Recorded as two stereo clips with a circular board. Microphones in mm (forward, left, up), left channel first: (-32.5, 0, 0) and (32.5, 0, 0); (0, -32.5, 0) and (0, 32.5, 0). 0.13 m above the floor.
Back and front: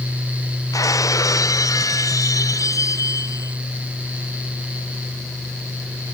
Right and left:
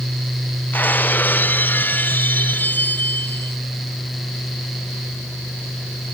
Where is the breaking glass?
155° right.